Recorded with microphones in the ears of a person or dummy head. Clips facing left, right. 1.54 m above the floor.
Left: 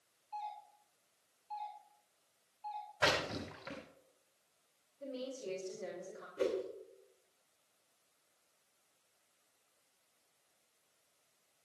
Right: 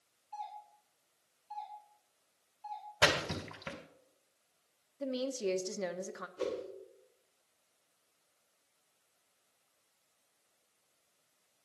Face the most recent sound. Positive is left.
turn(degrees=25)  # may be behind; listen again after turning